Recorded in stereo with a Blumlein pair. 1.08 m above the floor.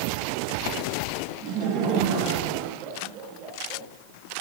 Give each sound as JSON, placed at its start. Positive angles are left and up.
{"t": 1.4, "sound": "laughter", "azimuth_deg": -35, "distance_m": 4.5}